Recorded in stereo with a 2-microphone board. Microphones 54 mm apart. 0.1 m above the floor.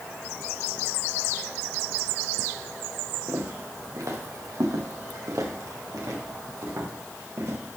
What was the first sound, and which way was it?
Footsteps, 60° right (ahead or behind).